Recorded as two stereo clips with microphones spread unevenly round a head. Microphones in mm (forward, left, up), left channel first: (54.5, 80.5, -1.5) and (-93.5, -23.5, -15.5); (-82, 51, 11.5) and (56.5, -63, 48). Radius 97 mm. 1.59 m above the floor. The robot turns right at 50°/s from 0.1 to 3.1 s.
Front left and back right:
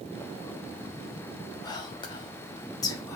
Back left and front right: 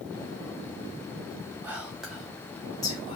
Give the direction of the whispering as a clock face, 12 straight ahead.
12 o'clock.